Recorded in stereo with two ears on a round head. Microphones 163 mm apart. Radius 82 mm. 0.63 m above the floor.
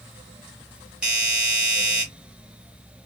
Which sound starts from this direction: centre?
A doorbell, at 1.0 s.